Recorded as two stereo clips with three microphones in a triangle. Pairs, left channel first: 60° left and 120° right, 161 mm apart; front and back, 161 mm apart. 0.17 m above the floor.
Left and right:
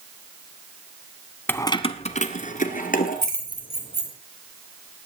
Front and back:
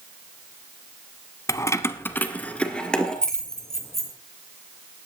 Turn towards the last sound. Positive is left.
turn(degrees=90)